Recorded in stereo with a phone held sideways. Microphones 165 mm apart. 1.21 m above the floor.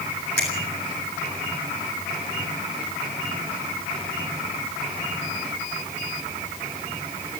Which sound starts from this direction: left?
A finger snap, at 0.4 s.